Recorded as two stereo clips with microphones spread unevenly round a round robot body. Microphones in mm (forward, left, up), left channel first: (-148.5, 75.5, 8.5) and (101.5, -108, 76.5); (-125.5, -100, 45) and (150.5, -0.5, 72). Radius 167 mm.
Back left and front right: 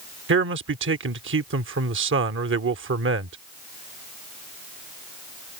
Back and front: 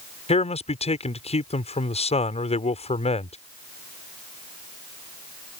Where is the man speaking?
90° right.